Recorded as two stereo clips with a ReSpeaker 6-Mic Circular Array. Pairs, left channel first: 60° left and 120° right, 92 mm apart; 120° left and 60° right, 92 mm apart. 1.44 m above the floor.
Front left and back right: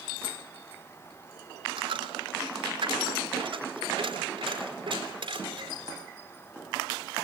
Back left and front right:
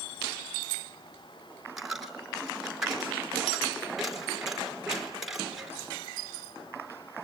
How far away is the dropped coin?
About 4 m.